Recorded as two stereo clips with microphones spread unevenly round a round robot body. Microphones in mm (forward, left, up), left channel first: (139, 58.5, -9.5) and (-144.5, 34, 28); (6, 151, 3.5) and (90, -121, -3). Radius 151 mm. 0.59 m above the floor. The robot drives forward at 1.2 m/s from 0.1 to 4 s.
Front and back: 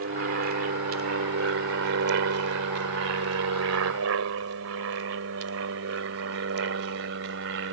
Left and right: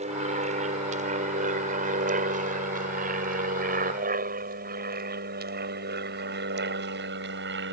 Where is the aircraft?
135° right; by 7.7 s 125° right.